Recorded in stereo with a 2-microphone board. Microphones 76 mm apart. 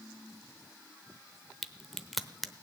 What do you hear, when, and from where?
1.6 s a crack: centre (ahead or behind), 0.8 m